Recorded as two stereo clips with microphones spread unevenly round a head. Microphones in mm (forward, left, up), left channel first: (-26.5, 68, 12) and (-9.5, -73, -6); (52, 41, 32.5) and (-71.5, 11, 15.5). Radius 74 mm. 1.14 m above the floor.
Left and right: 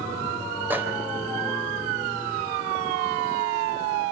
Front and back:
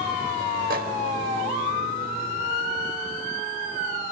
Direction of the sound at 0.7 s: 160° right.